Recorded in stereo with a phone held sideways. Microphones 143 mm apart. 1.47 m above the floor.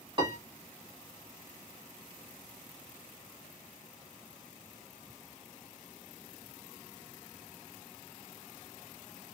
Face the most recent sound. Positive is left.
turn(degrees=-35)  # may be behind; listen again after turning